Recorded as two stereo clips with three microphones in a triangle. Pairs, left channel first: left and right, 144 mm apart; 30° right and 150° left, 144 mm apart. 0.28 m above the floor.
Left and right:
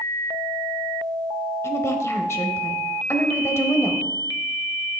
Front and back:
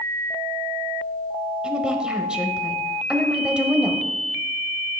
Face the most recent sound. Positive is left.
turn(degrees=80)